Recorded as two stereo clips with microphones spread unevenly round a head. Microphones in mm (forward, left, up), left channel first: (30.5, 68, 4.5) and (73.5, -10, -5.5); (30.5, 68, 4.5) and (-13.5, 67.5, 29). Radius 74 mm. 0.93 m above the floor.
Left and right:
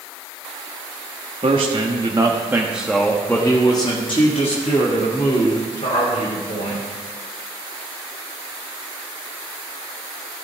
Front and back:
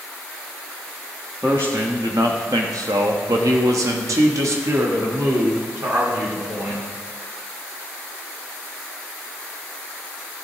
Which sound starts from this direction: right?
A man speaking, at 1.4 s.